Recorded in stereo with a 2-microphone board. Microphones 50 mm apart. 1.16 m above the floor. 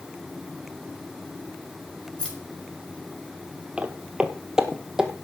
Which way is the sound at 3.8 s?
20° right (ahead or behind).